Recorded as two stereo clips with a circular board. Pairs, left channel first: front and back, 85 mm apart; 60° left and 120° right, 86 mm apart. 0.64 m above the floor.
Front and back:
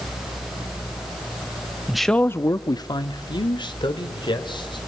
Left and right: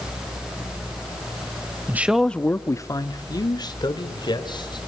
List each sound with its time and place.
1.9 s a man speaking: 110° right, 0.7 m; by 4.8 s 30° left, 3 m